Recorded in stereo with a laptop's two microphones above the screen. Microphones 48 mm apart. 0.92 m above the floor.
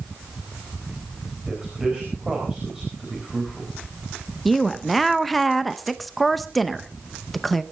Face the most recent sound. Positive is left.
turn(degrees=5)  # may be behind; listen again after turning